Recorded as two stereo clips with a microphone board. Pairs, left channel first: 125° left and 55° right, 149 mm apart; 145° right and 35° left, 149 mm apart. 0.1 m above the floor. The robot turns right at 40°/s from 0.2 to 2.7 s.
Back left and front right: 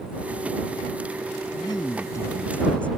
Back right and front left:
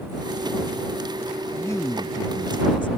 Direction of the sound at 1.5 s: 150° left.